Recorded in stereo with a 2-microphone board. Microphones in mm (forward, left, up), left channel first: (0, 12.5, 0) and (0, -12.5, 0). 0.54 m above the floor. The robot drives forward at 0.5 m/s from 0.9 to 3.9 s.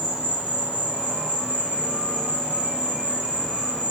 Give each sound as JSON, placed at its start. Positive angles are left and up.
{"t": 0.0, "sound": "an insect", "side_deg": 65, "distance_m": 1.7}